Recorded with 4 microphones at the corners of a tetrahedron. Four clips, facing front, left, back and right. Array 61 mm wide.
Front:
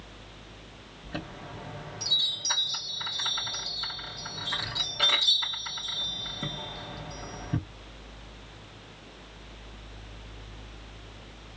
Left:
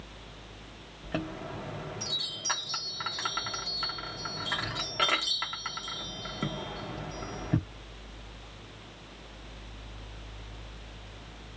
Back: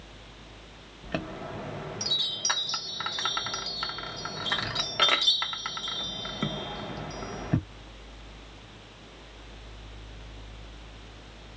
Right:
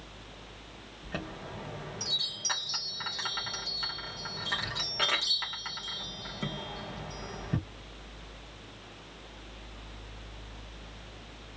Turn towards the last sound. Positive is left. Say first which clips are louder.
# left 4 dB, back 5 dB
turn(degrees=170)